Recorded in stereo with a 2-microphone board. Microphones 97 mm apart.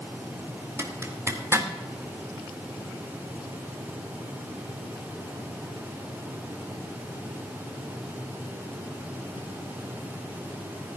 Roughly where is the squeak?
I don't hear a squeak.